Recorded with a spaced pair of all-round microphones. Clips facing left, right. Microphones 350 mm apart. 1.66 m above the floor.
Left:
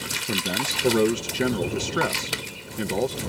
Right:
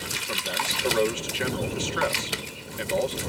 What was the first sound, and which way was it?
A man speaking, 55° left (ahead or behind).